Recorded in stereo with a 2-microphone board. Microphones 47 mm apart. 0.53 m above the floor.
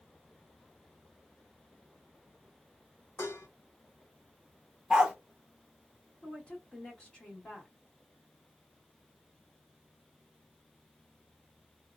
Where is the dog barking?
15° right (ahead or behind), 0.6 m.